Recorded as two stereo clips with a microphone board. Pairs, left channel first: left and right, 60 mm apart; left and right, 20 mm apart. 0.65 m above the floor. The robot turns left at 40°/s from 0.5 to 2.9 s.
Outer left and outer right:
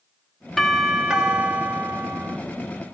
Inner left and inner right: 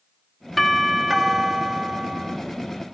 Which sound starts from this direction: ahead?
A doorbell, at 0.6 s.